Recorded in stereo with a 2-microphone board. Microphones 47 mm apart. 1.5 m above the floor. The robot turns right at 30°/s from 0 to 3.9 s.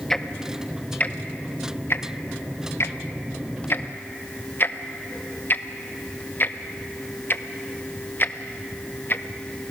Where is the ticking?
10° left (ahead or behind), 0.8 m; by 9.2 s 45° left (ahead or behind), 0.8 m.